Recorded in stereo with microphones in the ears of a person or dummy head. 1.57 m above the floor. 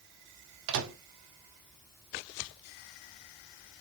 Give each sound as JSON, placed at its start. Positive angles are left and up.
{"t": 0.7, "sound": "a microwave", "side_deg": -70, "distance_m": 0.7}